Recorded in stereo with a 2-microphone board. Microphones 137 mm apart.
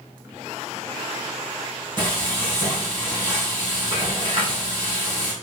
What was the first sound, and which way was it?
Frying, 35° right (ahead or behind).